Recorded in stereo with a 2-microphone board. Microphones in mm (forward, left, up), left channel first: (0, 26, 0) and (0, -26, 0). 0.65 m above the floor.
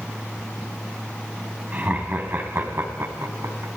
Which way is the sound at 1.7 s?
30° right (ahead or behind).